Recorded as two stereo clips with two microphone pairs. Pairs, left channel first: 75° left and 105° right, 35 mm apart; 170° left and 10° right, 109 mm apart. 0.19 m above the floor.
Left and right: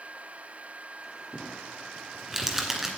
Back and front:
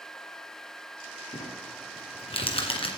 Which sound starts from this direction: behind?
Crumpling, at 1.3 s.